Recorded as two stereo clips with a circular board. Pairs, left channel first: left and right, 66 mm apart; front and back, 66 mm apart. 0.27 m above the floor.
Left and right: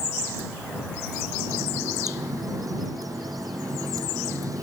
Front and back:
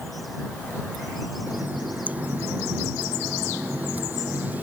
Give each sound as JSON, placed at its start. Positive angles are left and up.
{"t": 1.5, "sound": "a running tap", "azimuth_deg": -115}